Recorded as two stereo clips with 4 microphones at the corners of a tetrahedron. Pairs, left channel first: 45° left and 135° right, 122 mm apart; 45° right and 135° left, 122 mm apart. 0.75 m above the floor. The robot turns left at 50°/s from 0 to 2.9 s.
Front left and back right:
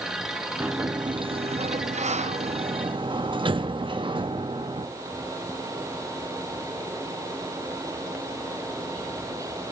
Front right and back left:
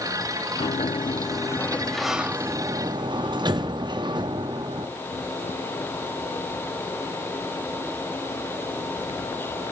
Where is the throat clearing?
I don't hear throat clearing.